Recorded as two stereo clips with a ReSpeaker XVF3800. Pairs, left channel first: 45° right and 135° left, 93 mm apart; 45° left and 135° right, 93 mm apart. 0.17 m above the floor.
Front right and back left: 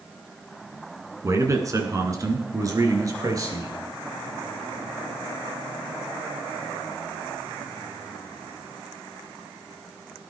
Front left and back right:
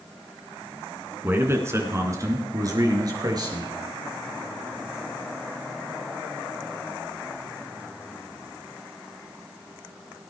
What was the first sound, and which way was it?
A man speaking, 170° left.